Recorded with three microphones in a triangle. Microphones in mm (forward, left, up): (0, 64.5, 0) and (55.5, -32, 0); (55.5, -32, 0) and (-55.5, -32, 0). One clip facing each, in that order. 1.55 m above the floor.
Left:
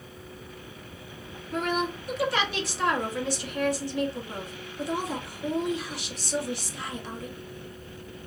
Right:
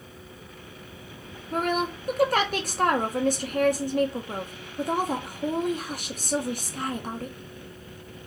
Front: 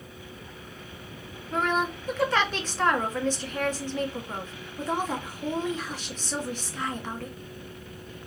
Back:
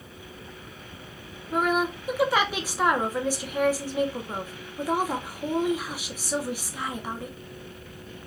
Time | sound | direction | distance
1.5 | a woman speaking | 100° right | 1.0 m